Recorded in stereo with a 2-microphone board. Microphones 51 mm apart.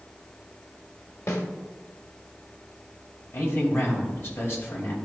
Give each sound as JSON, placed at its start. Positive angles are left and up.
{"t": 1.3, "sound": "a snare drum", "side_deg": 70, "distance_m": 1.4}
{"t": 3.3, "sound": "a man speaking", "side_deg": 45, "distance_m": 2.5}